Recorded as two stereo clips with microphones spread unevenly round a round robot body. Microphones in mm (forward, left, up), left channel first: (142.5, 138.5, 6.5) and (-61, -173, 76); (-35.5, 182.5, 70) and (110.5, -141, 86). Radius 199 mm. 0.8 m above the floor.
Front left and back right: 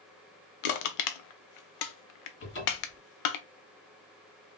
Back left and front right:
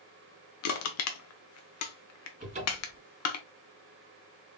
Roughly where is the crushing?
Left.